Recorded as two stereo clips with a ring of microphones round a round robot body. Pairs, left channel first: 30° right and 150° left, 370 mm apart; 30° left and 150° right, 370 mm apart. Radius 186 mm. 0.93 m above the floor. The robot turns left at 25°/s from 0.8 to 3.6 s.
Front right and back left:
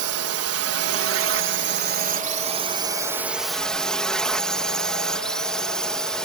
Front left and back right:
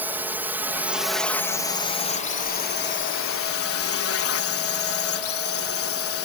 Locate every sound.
0.0 s a drone: 125° left; by 6.2 s 55° left